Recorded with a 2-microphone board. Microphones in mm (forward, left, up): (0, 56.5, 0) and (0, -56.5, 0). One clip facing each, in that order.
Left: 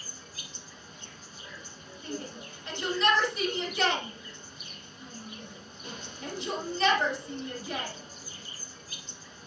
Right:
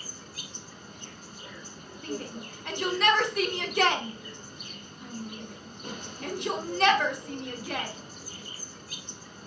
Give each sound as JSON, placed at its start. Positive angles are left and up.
{"t": 0.0, "sound": "an insect", "side_deg": -60, "distance_m": 1.3}
{"t": 2.0, "sound": "a shout", "side_deg": -65, "distance_m": 2.5}